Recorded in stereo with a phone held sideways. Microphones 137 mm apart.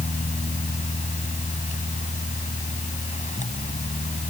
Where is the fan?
60° left (ahead or behind).